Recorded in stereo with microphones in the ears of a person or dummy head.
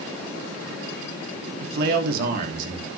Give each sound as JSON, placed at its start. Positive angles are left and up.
{"t": 1.6, "sound": "a man speaking", "side_deg": -60, "distance_m": 2.5}